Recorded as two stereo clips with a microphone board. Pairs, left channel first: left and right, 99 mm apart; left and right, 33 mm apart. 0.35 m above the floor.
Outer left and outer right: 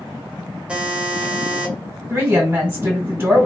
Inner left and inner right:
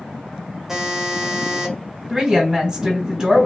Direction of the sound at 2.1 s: 20° right (ahead or behind).